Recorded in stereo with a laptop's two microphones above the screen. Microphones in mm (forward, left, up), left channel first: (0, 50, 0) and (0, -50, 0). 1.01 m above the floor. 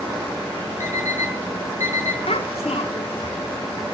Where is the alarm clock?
35° right (ahead or behind), 7 m.